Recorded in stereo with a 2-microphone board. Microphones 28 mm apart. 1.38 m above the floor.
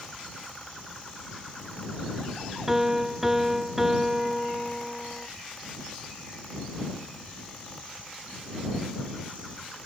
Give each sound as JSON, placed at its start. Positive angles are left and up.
{"t": 2.7, "sound": "a piano", "side_deg": -15}